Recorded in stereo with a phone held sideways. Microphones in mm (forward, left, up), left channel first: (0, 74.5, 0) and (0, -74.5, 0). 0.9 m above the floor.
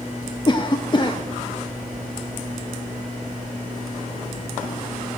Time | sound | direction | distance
0.5 | a cough | 30° left (ahead or behind) | 0.8 m